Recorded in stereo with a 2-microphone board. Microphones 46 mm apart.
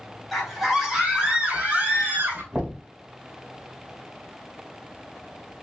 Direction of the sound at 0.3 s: 5° left (ahead or behind).